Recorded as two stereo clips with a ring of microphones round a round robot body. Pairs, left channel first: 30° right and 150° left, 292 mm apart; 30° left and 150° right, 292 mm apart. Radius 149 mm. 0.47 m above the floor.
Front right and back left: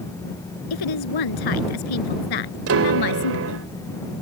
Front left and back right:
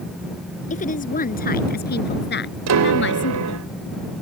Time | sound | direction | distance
0.7 | a woman speaking | 35° right | ?
2.7 | a piano | 175° right | ?